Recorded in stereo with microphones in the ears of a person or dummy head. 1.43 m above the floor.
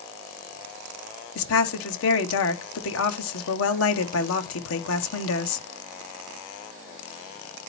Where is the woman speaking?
75° left (ahead or behind), 1.2 m.